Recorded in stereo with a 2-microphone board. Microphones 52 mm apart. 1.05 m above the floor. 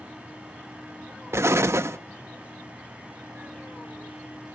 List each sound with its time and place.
1.3 s an explosion: 60° right (ahead or behind), 0.5 m